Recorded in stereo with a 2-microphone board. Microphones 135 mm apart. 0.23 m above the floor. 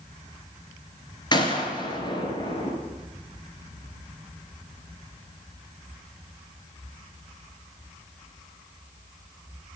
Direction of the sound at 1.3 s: 30° left (ahead or behind).